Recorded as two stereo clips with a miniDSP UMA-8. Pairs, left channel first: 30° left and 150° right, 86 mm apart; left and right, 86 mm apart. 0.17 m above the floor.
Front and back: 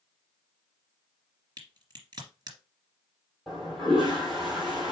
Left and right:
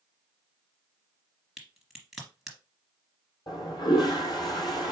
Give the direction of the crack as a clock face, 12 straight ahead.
6 o'clock.